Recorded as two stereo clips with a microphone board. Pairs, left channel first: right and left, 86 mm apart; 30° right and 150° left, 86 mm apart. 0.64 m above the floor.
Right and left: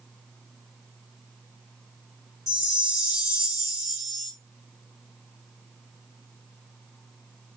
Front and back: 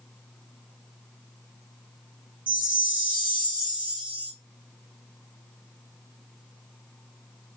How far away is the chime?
About 1.8 m.